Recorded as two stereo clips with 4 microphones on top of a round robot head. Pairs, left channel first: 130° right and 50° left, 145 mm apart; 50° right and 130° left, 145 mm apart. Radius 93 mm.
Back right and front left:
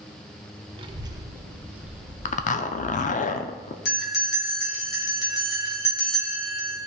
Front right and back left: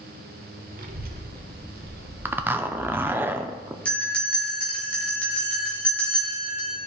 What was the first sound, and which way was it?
A child speaking, 100° left.